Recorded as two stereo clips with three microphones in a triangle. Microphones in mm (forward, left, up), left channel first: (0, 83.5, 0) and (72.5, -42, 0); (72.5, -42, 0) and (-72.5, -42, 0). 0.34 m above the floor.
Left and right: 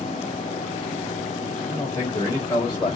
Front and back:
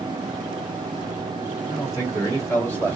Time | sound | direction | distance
1.7 | a man speaking | 55° left | 3 m